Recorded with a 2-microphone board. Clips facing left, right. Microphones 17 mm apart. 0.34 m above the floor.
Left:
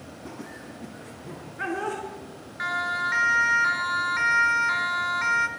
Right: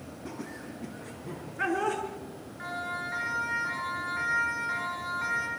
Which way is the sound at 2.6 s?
75° left (ahead or behind).